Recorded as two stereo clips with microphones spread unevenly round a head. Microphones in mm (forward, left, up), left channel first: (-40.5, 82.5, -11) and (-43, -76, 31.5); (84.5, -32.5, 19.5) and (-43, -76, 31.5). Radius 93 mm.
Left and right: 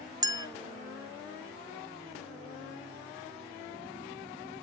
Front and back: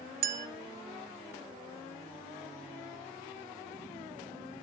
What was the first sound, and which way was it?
A clink, 155° right.